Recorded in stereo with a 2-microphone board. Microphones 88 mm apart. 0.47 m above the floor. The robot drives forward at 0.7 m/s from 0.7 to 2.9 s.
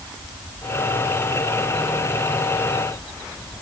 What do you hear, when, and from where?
Only background noise.